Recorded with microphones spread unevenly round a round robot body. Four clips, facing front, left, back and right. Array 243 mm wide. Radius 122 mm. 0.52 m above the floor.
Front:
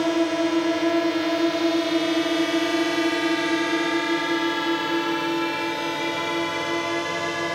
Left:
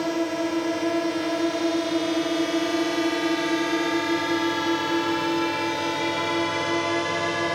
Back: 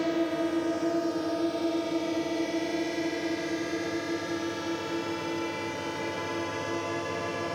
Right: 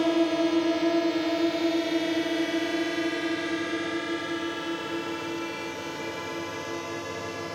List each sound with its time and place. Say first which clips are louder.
0.0 s a drone: right 2 dB, front 6 dB; 30° right; by 7.5 s 50° left